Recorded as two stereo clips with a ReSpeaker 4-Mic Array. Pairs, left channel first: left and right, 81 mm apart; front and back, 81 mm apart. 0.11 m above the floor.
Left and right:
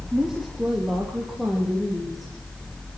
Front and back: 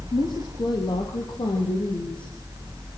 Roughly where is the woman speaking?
Ahead.